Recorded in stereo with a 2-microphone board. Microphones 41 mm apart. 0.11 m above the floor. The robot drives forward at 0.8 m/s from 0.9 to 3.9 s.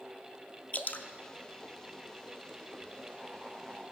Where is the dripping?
35° left (ahead or behind), 0.6 m; by 1.1 s 45° left (ahead or behind), 0.5 m.